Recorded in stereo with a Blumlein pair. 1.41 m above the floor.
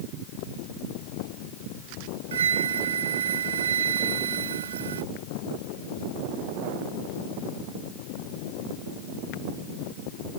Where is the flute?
65° right.